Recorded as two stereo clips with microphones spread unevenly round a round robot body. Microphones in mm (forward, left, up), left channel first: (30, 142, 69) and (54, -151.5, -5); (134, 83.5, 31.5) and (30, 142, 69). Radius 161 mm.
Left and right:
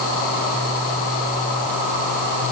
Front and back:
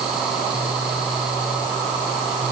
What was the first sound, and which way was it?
Only background noise.